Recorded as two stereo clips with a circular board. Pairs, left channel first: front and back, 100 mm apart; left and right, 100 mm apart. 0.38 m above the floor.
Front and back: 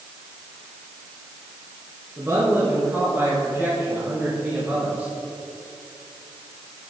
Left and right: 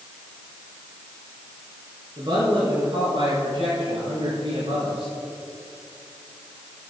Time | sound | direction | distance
2.2 | a man speaking | 120° right | 4 m